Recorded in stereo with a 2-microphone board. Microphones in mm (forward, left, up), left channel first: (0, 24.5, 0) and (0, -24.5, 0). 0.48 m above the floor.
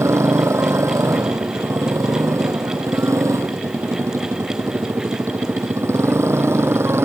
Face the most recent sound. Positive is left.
turn(degrees=-60)  # may be behind; listen again after turning